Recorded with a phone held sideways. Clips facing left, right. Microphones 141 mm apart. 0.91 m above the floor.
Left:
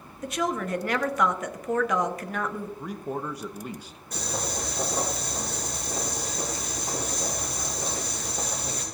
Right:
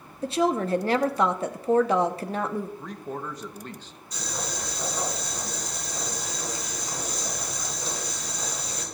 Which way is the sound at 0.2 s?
30° right (ahead or behind).